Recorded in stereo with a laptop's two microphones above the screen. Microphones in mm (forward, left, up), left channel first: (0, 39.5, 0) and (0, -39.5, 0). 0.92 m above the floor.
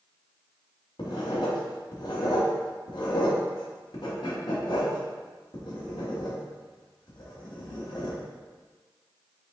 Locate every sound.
1.0 s writing: 65° left (ahead or behind), 0.9 m